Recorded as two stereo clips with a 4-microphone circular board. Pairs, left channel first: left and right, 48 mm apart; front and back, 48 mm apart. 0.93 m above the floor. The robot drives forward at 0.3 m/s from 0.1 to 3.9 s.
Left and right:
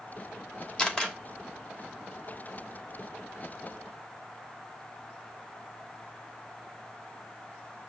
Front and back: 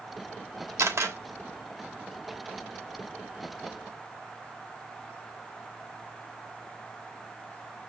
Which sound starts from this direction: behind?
A camera shutter, at 0.8 s.